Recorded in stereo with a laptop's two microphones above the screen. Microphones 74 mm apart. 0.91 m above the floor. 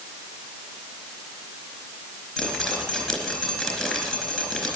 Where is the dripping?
Centre (ahead or behind), 3.5 m.